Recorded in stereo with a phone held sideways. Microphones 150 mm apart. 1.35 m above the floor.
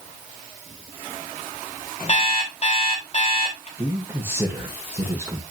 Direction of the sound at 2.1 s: 50° left (ahead or behind).